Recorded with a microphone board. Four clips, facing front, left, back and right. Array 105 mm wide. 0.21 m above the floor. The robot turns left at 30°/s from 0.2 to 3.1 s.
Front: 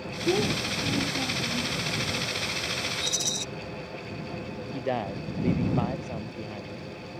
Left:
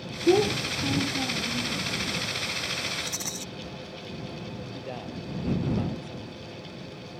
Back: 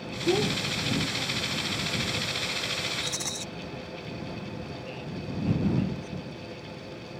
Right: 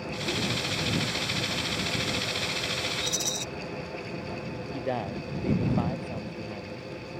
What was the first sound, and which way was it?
A child speaking, 95° left.